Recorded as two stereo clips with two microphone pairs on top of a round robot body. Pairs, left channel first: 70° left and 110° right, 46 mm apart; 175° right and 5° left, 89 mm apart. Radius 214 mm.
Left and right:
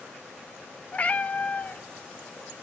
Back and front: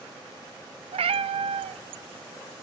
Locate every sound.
0.9 s a cat meowing: 10° left, 0.7 m